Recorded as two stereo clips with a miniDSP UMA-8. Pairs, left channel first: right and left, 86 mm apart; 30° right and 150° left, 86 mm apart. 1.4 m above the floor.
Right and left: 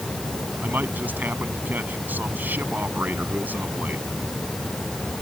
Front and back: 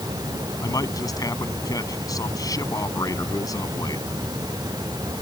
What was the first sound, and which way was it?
A man speaking, 20° left.